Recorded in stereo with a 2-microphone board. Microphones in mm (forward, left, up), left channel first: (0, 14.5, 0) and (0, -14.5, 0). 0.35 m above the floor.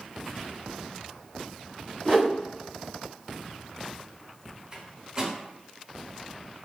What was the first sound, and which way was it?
A whoosh, 35° left (ahead or behind).